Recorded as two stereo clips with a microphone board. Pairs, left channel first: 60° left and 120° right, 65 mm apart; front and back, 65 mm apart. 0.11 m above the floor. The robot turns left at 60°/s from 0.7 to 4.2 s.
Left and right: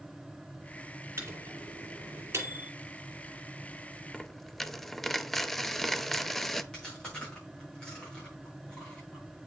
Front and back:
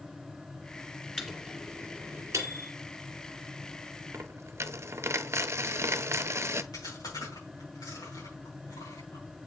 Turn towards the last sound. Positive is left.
turn(degrees=-20)